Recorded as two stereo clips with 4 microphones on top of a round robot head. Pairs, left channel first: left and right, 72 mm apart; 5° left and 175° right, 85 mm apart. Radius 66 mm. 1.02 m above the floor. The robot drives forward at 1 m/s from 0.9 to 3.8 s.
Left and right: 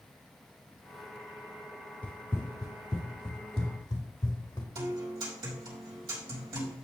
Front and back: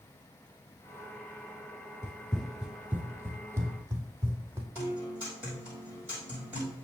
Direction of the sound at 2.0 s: 35° left.